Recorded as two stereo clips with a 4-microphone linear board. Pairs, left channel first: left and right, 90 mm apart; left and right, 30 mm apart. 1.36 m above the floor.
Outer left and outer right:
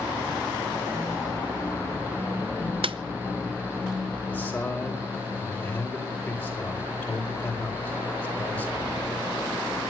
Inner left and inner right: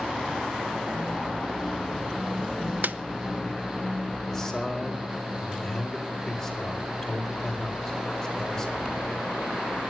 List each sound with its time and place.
2.8 s a snare drum: 75° right (ahead or behind), 0.7 m
4.3 s a man speaking: 15° left (ahead or behind), 4.5 m